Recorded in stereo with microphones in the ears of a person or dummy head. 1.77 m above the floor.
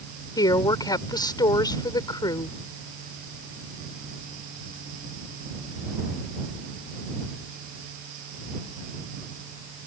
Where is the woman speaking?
30° left (ahead or behind).